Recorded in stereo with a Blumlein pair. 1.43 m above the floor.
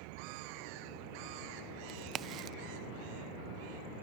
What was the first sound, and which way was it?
A crack, 25° right.